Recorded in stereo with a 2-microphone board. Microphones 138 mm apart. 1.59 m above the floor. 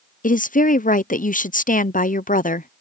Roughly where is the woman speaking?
Left.